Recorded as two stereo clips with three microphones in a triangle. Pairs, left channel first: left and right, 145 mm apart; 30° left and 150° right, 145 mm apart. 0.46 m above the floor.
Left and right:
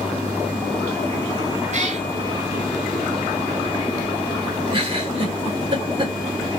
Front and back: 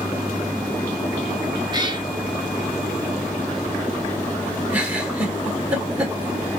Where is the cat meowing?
100° right, 0.6 m.